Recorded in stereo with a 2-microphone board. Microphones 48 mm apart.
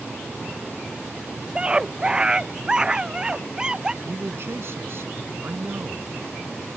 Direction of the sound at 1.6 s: 20° right (ahead or behind).